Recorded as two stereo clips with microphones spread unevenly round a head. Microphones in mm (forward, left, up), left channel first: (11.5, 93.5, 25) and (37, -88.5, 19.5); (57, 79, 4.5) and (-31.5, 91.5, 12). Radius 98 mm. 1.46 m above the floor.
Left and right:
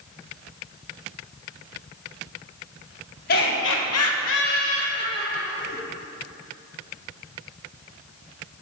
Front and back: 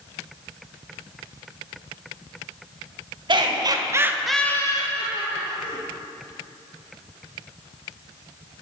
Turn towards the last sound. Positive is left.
turn(degrees=15)